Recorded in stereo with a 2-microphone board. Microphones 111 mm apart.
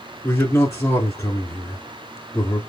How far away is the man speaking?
About 1.5 m.